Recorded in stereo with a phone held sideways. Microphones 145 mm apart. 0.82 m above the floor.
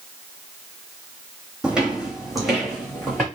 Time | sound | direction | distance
1.6 | footsteps | 5° right (ahead or behind) | 1.6 m